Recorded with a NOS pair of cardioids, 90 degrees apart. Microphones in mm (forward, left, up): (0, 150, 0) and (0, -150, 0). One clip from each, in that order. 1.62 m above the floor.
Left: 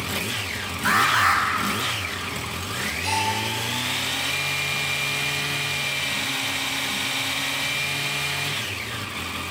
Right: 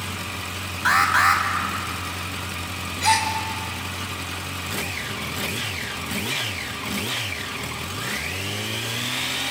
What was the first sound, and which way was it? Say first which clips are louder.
An alarm: right 1 dB; 25° right.